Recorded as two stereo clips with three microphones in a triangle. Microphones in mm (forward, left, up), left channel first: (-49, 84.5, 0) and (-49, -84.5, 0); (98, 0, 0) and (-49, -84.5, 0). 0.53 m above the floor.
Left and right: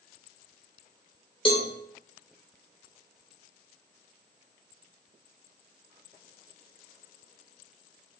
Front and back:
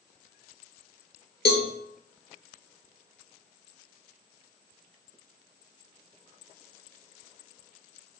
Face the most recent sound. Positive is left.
turn(degrees=35)